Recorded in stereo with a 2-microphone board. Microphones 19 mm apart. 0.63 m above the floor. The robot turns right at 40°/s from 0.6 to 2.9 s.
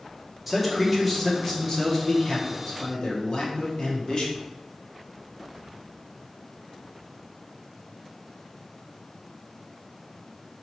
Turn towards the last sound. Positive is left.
turn(degrees=80)